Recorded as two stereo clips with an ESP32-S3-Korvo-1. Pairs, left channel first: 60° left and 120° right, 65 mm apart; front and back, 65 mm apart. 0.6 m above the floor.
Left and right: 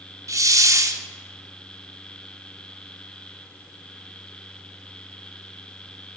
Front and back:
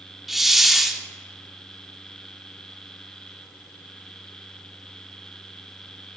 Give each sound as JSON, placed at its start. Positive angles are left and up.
{"t": 0.3, "sound": "a hiss", "azimuth_deg": -95, "distance_m": 0.7}